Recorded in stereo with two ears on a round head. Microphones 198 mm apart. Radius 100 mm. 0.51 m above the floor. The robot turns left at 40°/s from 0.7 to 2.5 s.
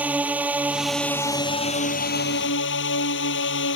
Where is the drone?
175° right; by 3.8 s 115° left.